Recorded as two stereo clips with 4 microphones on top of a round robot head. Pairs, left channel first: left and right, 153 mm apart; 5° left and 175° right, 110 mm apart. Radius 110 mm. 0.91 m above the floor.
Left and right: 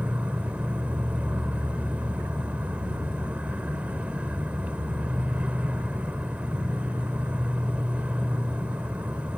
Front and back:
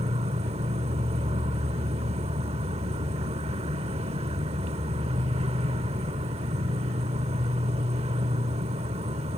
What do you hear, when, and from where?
0.0 s an insect: 170° right